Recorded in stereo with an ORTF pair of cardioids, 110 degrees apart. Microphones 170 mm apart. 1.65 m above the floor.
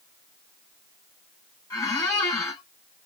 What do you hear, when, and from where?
1.7 s a squeak: 20° left, 1.9 m